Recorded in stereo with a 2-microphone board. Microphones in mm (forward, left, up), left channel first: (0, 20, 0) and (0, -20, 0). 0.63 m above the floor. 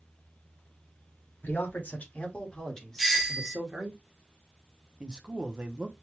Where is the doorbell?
5° right (ahead or behind), 1.0 m.